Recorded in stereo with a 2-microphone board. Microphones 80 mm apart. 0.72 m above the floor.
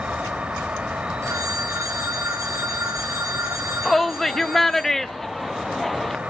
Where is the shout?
5° left (ahead or behind), 0.6 m.